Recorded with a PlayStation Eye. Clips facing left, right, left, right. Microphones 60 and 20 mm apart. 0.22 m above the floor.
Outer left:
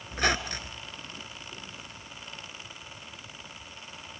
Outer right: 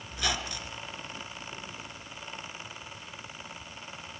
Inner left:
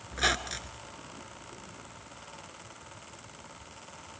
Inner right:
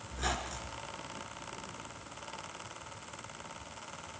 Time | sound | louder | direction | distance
0.1 | a squeak | outer left 5 dB, inner left 7 dB | 45° left (ahead or behind) | 1.3 m